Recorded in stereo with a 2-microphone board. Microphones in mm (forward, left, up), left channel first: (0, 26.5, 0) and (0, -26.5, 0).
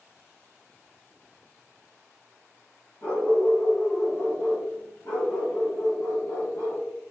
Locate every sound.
3.0 s a dog barking: 60° left (ahead or behind), 1.6 m